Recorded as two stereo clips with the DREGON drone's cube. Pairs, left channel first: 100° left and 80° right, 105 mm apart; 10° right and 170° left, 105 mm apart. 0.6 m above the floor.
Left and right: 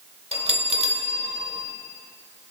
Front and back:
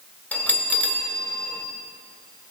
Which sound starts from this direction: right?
A bell, at 0.3 s.